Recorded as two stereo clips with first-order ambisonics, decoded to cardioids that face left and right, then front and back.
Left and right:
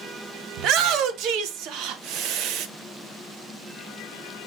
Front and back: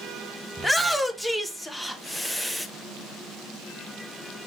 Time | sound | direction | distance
0.6 | a shout | 90° right | 0.6 m